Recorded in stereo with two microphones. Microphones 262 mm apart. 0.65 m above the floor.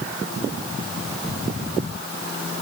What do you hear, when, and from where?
Only background noise.